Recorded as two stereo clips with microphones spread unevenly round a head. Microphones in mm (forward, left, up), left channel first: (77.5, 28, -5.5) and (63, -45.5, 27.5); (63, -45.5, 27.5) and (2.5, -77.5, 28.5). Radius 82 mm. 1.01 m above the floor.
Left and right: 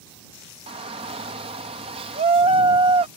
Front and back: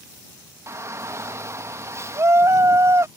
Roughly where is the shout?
Right.